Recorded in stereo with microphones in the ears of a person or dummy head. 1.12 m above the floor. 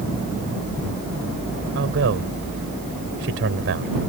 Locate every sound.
1.8 s a man speaking: 65° right (ahead or behind)